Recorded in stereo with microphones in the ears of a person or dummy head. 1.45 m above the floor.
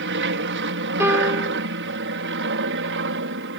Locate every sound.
0.0 s an aircraft: 55° right (ahead or behind); by 3.6 s 60° right (ahead or behind)
1.0 s a piano: 10° right (ahead or behind)